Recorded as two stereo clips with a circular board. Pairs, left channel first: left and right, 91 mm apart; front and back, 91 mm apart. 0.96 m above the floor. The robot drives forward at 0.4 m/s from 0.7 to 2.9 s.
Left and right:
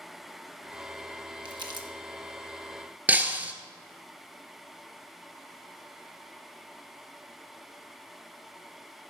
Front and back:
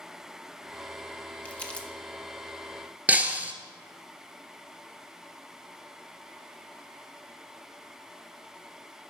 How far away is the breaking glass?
About 1.0 m.